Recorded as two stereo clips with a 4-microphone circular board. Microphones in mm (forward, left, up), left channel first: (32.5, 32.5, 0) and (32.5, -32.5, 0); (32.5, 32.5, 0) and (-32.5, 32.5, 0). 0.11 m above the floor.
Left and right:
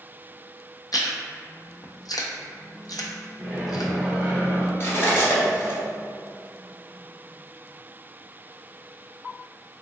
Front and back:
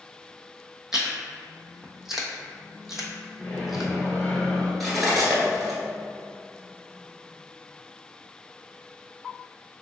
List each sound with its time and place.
0.9 s chewing: 95° left, 0.7 m
3.4 s a microwave: 25° right, 1.3 m
4.8 s cutlery clinking: 90° left, 1.2 m